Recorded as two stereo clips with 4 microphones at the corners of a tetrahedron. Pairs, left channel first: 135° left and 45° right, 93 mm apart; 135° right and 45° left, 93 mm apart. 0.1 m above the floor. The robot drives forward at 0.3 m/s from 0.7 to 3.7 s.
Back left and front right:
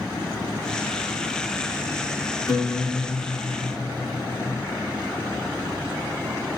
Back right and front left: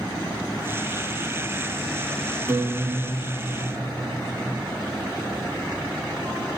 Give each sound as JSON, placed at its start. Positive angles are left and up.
{"t": 2.5, "sound": "a guitar", "azimuth_deg": 100, "distance_m": 2.5}